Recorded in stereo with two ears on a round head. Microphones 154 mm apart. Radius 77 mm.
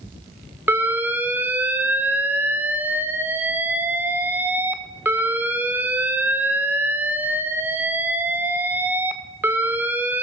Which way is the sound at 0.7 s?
10° right (ahead or behind).